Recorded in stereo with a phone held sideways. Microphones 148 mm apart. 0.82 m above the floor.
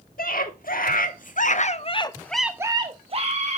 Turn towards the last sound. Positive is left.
turn(degrees=-50)  # may be behind; listen again after turning